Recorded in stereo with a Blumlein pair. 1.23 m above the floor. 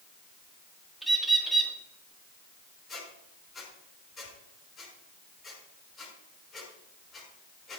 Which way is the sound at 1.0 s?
5° right.